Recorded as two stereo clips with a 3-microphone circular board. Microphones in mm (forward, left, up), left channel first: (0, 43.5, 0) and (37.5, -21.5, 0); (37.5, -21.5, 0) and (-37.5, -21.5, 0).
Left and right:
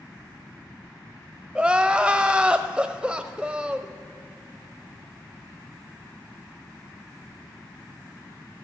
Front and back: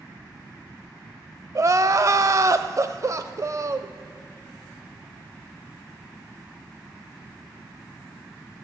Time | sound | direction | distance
1.6 | crying | 135° right | 0.6 m